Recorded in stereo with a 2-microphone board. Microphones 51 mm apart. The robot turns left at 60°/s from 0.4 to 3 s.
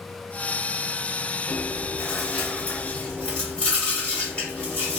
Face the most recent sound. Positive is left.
turn(degrees=20)  # may be behind; listen again after turning